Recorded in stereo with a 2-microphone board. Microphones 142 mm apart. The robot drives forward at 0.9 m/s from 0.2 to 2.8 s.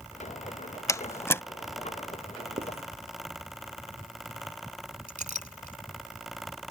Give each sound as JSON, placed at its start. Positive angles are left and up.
{"t": 0.9, "sound": "a door slam", "side_deg": 20}
{"t": 2.6, "sound": "writing", "side_deg": -45}
{"t": 5.1, "sound": "a clink", "side_deg": -60}